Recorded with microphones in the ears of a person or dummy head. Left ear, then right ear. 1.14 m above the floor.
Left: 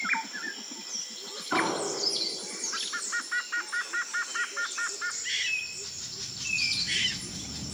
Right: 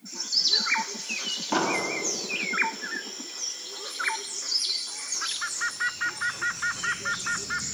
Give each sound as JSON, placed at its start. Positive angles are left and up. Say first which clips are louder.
{"t": 1.5, "sound": "an explosion", "louder": "right 1 dB", "side_deg": -30, "distance_m": 4.5}